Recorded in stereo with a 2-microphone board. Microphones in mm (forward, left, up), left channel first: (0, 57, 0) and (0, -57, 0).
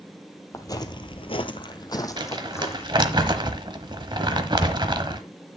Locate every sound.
0.5 s footsteps: 30° left (ahead or behind), 1.0 m; by 3.2 s 20° left (ahead or behind), 2 m
2.2 s crumpling: 45° right (ahead or behind), 1.1 m